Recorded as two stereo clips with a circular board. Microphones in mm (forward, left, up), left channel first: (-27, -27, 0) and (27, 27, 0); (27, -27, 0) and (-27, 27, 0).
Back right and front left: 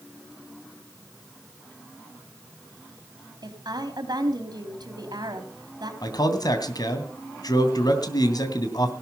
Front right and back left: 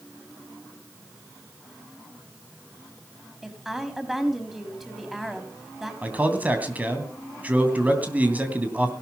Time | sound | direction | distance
3.4 | a woman speaking | 50° left | 3.5 m
6.0 | a man speaking | 155° right | 2.5 m